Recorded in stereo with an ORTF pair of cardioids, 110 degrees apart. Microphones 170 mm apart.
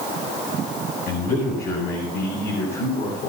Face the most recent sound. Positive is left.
turn(degrees=70)